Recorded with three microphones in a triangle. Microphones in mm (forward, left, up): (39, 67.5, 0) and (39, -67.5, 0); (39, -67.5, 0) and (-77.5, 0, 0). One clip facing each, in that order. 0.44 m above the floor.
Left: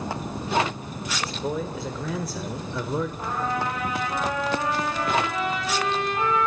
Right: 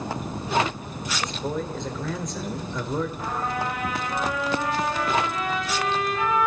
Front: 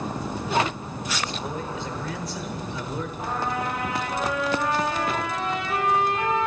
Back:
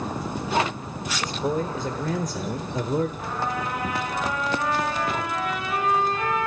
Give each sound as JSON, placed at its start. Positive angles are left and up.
{"t": 1.2, "sound": "a man speaking", "azimuth_deg": 170, "distance_m": 1.3}
{"t": 3.2, "sound": "a trumpet", "azimuth_deg": 35, "distance_m": 9.5}